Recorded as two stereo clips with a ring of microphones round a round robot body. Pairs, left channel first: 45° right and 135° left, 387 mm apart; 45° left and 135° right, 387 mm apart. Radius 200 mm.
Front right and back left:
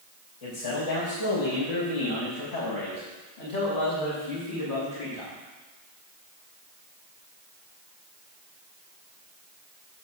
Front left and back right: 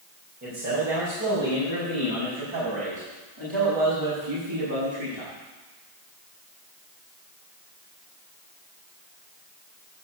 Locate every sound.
0.4 s a man speaking: 70° right, 3 m; by 5.3 s 90° right, 5.5 m